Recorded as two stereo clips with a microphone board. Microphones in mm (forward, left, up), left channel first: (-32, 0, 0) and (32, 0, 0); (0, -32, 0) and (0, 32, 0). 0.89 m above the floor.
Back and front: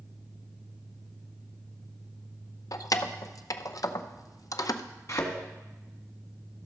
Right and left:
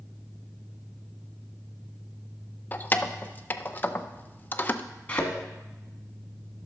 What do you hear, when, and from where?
2.7 s keys jangling: 150° right, 0.5 m
5.1 s a thud: 155° right, 1.4 m